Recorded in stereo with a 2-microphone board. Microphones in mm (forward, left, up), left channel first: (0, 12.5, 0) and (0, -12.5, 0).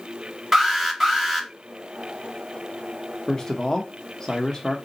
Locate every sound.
0.5 s an alarm: 5° right (ahead or behind), 1.5 m
3.3 s a man speaking: 25° left (ahead or behind), 0.7 m